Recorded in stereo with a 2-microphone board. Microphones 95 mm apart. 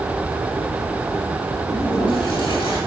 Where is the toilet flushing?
65° left (ahead or behind), 6.5 m.